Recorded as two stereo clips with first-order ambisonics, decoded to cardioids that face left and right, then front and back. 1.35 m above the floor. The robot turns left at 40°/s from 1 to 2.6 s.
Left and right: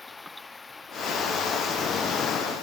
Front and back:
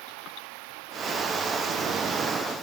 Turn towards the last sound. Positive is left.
turn(degrees=105)